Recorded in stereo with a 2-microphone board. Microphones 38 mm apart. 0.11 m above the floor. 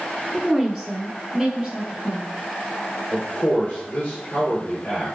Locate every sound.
0.3 s a woman speaking: 10° left (ahead or behind), 1.1 m; by 3.0 s 25° right (ahead or behind), 1.7 m
3.1 s a man speaking: 40° left (ahead or behind), 1.7 m